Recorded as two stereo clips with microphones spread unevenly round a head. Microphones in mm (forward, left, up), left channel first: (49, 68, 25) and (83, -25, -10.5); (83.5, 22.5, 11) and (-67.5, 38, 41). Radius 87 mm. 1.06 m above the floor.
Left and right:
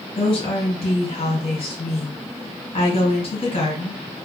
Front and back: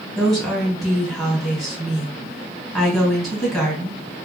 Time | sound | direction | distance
0.2 | a woman speaking | 80° left | 1.8 m